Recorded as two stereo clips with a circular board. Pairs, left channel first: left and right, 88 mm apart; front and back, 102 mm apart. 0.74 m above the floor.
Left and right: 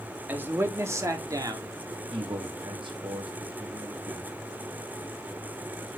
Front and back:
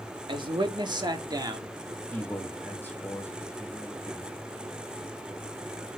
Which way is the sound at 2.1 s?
70° right.